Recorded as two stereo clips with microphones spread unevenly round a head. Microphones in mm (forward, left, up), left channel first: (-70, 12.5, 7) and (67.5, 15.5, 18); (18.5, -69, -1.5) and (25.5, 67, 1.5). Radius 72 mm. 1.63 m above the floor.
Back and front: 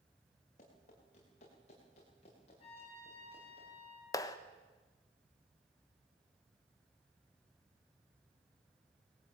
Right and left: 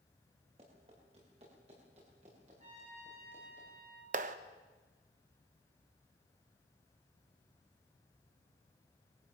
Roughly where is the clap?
Behind left.